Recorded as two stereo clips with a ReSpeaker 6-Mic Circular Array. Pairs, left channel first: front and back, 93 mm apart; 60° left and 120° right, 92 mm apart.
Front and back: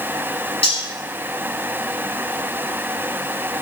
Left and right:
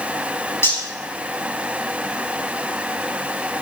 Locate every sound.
0.6 s cutlery clinking: 5° right, 5.5 m